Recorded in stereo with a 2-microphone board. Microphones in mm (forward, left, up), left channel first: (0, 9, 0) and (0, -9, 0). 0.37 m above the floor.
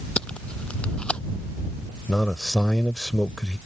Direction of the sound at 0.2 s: 80° left.